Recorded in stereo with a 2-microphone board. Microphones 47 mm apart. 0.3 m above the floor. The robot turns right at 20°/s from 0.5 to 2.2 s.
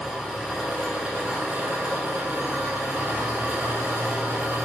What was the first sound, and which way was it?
An engine running, 170° right.